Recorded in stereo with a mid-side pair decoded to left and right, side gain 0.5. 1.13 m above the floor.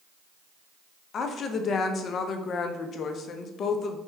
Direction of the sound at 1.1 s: 50° left.